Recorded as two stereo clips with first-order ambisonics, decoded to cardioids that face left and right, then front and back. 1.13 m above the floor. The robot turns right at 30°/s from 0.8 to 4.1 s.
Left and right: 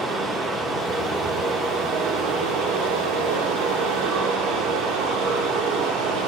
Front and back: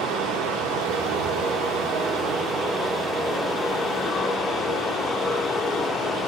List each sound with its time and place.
0.0 s running water: straight behind, 1.4 m; by 6.3 s 80° right, 1.4 m